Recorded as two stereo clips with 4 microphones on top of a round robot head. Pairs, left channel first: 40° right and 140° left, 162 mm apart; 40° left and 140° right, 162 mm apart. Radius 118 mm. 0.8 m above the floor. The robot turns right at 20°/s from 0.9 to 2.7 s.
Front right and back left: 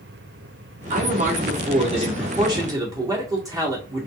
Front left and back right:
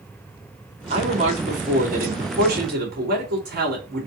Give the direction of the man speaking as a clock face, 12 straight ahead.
6 o'clock.